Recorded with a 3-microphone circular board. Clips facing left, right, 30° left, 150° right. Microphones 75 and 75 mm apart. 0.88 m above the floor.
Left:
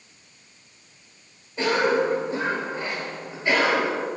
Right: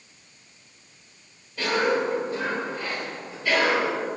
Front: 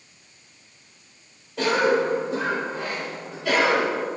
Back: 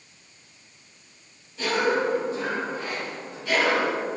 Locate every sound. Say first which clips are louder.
1.6 s a cough: left 2 dB, front 3 dB; 25° left, 4.5 m